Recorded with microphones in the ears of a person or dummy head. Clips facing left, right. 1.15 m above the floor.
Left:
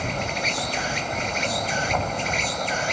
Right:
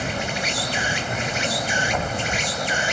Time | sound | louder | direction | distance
0.0 | an insect | right 1 dB | 10° right (ahead or behind) | ?